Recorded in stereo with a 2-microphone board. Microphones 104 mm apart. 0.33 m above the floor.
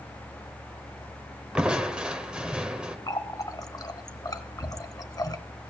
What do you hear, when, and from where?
1.6 s crushing: 10° right (ahead or behind), 1.0 m
3.1 s a running tap: 35° left (ahead or behind), 0.7 m